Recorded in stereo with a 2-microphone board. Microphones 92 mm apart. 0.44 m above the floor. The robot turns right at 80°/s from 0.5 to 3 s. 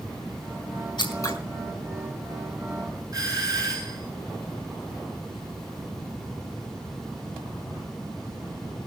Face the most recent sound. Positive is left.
turn(degrees=-40)  # may be behind; listen again after turning